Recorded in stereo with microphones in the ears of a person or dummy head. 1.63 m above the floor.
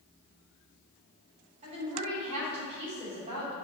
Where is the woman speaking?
35° right (ahead or behind), 3 m.